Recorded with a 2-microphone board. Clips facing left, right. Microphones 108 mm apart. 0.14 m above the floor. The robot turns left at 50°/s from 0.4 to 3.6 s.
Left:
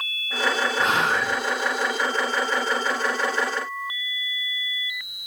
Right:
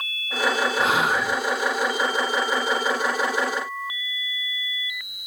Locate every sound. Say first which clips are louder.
0.8 s whispering: even; centre (ahead or behind), 1.0 m; by 1.4 s 10° right (ahead or behind), 1.0 m